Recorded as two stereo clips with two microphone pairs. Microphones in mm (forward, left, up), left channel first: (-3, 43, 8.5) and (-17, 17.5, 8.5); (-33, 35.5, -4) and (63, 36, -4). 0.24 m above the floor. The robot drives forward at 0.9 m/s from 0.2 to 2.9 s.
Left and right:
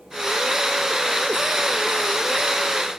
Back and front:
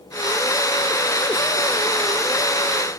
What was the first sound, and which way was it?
Only background noise.